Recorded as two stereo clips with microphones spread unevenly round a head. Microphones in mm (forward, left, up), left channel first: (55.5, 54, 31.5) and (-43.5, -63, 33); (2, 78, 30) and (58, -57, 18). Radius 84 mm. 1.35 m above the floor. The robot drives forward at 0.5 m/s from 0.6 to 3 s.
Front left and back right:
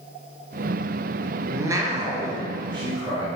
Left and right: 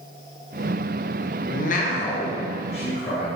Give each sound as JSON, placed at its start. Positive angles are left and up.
{"t": 1.5, "sound": "a man speaking", "azimuth_deg": 155, "distance_m": 0.6}